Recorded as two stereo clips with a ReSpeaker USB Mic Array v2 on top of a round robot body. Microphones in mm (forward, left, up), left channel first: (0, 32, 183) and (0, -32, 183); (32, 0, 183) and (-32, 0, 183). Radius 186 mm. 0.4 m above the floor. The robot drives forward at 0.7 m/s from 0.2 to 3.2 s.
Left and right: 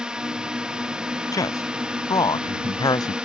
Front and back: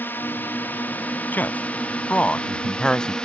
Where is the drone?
20° right; by 3.2 s 45° right.